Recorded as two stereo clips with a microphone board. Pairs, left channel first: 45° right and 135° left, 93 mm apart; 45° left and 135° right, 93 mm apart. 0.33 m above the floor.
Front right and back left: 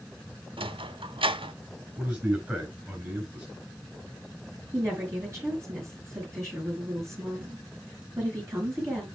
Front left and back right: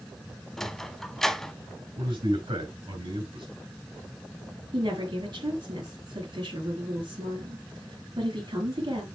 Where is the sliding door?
130° left, 0.6 m.